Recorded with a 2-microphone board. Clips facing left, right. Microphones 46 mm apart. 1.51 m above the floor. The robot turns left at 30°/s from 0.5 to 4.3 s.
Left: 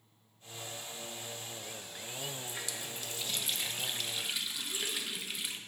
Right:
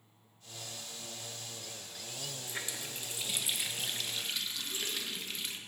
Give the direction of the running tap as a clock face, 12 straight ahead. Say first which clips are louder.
Even; 5 o'clock.